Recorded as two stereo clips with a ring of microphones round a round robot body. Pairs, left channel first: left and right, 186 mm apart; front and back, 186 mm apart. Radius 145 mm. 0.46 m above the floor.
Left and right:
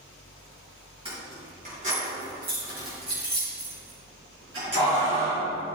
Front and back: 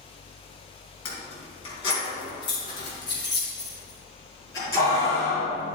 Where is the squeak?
No squeak in this recording.